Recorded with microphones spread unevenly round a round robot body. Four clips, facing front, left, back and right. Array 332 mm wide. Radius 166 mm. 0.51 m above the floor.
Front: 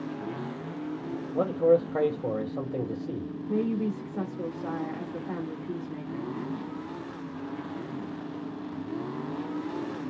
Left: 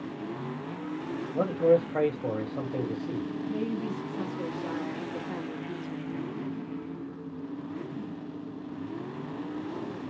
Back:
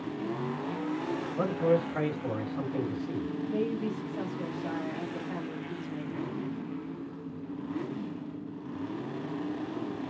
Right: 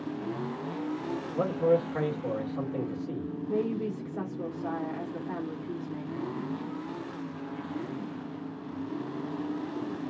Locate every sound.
1.3 s a man speaking: 20° left, 1.9 m
3.5 s a woman speaking: 10° right, 1.7 m